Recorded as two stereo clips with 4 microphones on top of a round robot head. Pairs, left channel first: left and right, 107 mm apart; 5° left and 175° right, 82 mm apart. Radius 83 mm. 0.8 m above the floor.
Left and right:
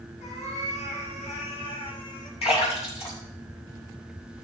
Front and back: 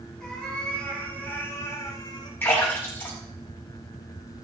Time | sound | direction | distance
0.2 | a cat meowing | 85° left | 4 m
2.4 | a splash | 65° left | 5.5 m